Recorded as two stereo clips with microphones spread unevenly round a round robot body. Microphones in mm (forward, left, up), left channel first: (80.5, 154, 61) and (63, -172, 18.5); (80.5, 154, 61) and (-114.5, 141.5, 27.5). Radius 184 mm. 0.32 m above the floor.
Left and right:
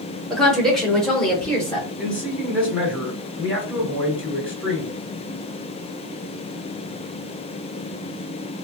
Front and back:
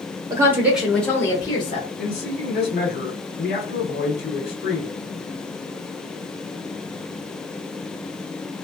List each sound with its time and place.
0.3 s a woman speaking: 170° right, 1.2 m; by 1.9 s 15° right, 1.1 m
2.0 s a man speaking: 5° right, 1.8 m